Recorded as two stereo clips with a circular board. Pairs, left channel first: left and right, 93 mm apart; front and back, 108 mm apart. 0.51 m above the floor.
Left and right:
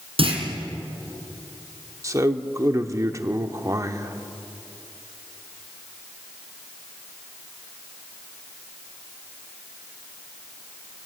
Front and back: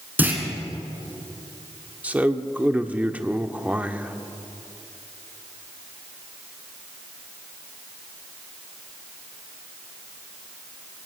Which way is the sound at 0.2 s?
105° right.